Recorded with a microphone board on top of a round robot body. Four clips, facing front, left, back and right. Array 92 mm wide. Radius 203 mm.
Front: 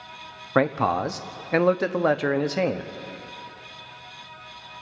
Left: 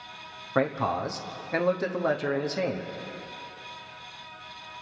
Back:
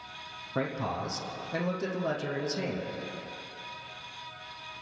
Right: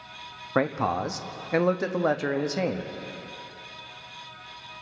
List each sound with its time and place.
0.6 s a man speaking: 10° right, 1.3 m